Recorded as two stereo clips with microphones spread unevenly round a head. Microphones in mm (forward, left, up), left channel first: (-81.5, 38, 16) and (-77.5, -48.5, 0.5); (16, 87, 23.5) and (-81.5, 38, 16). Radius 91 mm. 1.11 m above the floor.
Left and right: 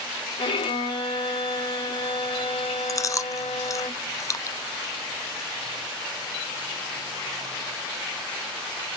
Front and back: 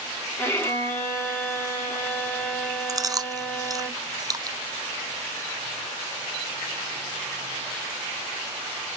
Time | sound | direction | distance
0.4 | a violin | 95° left | 3.5 m
2.9 | chewing | 150° left | 0.6 m